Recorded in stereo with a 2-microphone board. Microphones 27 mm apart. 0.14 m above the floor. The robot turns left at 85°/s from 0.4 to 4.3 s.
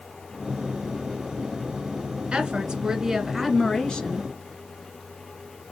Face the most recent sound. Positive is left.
turn(degrees=100)